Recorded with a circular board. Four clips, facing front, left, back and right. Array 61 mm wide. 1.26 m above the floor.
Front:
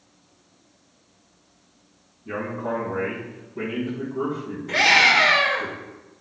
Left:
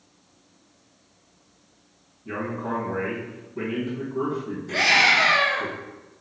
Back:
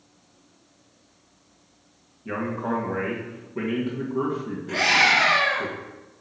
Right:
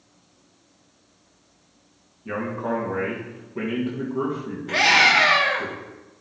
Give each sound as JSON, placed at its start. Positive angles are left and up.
{"t": 2.2, "sound": "a man speaking", "azimuth_deg": -135, "distance_m": 1.9}
{"t": 4.7, "sound": "a scream", "azimuth_deg": -75, "distance_m": 2.5}